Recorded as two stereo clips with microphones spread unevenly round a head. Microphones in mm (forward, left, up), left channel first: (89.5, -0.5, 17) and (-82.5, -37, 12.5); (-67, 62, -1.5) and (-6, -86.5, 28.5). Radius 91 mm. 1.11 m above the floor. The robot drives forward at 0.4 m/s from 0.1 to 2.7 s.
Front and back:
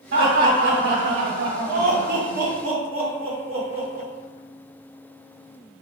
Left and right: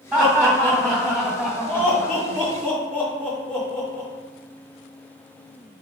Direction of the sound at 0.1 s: 150° right.